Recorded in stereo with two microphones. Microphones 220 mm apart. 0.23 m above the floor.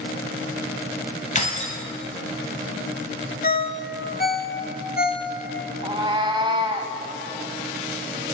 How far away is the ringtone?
About 0.6 m.